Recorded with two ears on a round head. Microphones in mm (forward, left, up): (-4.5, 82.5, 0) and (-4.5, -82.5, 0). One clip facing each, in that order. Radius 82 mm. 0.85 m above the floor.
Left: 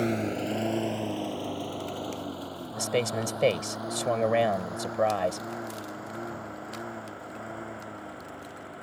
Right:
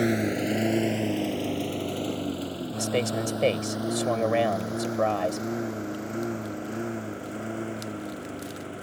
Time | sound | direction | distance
0.0 | a lawn mower | 15° right (ahead or behind) | ?
2.8 | a man speaking | centre (ahead or behind) | ?